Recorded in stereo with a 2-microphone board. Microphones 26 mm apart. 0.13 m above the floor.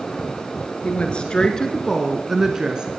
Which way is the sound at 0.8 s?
50° left (ahead or behind).